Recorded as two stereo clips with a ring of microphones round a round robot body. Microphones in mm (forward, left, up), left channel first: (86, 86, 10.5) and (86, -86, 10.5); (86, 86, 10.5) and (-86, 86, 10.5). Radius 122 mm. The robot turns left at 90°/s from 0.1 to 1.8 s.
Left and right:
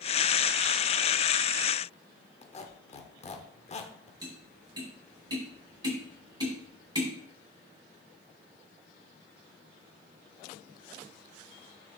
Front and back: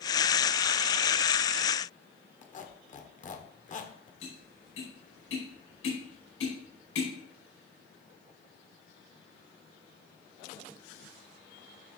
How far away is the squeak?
About 1.2 m.